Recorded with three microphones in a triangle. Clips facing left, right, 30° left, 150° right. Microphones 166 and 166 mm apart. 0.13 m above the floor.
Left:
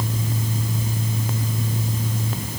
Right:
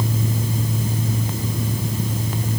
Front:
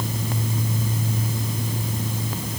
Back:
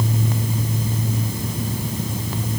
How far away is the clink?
No clink in this recording.